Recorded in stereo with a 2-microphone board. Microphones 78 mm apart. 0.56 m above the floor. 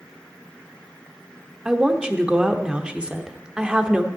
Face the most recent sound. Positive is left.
turn(degrees=-15)  # may be behind; listen again after turning